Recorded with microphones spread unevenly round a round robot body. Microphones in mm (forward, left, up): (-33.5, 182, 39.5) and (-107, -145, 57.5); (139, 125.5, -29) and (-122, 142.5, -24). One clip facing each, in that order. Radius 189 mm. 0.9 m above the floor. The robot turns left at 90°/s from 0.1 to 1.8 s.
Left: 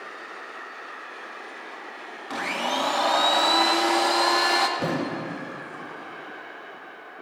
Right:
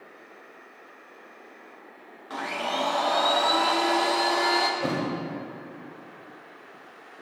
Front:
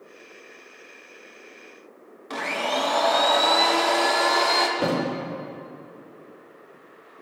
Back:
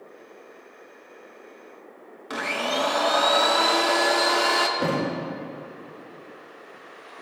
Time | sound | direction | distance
2.3 | a blender | 100° left | 0.9 m
4.8 | a thud | 80° left | 3 m